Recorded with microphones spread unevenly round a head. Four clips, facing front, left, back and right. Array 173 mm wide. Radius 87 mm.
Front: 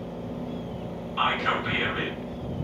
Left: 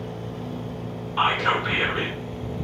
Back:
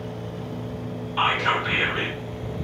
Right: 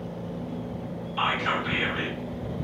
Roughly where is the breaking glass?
No breaking glass in this recording.